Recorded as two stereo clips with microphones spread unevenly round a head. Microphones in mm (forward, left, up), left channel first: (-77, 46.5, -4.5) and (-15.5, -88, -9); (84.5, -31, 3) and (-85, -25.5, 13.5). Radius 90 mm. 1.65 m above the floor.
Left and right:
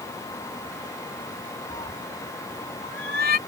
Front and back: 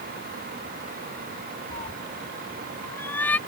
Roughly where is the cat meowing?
Ahead left.